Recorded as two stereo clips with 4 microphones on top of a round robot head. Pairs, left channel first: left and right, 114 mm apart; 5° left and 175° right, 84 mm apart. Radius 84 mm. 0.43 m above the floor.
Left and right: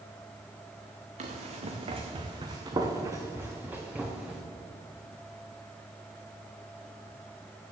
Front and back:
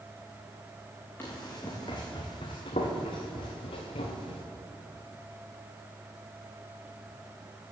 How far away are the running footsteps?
About 2.5 m.